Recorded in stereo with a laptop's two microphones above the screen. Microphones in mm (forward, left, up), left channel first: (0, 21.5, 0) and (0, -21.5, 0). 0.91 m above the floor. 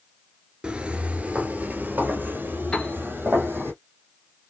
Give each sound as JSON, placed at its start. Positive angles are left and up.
{"t": 0.6, "sound": "footsteps", "side_deg": -20, "distance_m": 0.9}
{"t": 2.7, "sound": "a piano", "side_deg": 25, "distance_m": 1.4}